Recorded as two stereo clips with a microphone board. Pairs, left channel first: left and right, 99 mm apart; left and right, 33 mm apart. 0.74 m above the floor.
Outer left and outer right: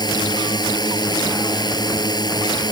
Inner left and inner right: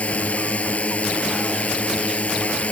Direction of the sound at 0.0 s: 45° left (ahead or behind).